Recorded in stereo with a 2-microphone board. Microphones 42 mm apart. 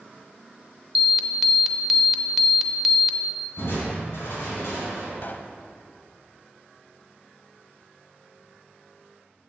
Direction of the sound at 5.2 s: 50° left (ahead or behind).